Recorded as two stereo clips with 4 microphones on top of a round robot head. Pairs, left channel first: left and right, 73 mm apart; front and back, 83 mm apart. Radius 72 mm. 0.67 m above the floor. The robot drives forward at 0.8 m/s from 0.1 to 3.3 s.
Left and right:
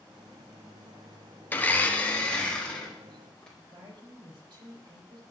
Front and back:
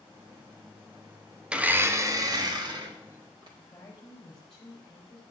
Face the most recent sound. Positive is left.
turn(degrees=-85)